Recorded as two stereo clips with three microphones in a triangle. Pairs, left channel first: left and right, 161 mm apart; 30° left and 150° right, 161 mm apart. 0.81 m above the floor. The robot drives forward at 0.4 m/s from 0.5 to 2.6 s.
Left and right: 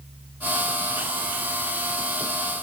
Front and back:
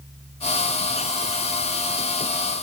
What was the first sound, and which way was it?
Only background noise.